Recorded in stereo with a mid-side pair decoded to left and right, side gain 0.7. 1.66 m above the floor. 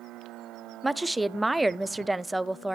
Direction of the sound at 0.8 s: 5° right.